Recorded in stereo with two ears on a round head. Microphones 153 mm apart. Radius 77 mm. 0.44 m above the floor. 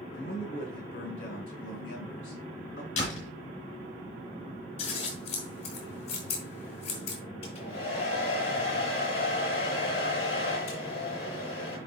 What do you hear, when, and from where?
0.1 s a man speaking: 50° left (ahead or behind), 5.5 m
3.0 s a door slam: 40° left (ahead or behind), 4.5 m
4.8 s scissors: 35° left (ahead or behind), 3 m
7.4 s a hair dryer: 35° left (ahead or behind), 6 m